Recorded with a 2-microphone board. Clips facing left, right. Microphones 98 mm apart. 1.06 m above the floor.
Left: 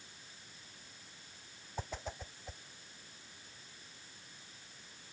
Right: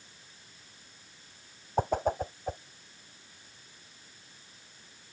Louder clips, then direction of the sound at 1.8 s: Right 16 dB; 50° right (ahead or behind).